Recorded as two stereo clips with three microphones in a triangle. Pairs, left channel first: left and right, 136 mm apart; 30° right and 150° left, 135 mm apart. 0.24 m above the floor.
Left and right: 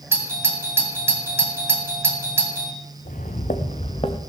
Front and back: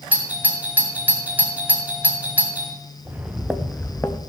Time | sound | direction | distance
0.1 | a doorbell | 145° right | 2 m
3.0 | footsteps | 75° left | 1.3 m